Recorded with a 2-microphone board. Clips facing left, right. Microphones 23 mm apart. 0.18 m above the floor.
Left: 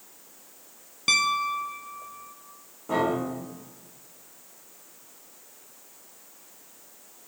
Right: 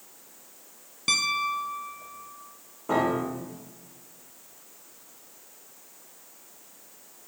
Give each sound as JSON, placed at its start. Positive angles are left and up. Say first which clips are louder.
{"t": 1.1, "sound": "a piano", "louder": "left 2 dB", "side_deg": 15, "distance_m": 0.9}
{"t": 2.9, "sound": "a piano", "louder": "even", "side_deg": -30, "distance_m": 5.5}